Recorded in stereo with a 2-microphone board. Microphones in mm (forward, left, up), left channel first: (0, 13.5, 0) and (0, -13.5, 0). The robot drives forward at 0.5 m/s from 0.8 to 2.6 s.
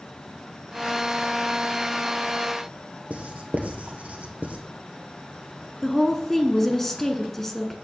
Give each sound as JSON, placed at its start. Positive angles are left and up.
{"t": 3.1, "sound": "writing", "side_deg": -65, "distance_m": 1.5}
{"t": 5.8, "sound": "a woman speaking", "side_deg": 10, "distance_m": 1.1}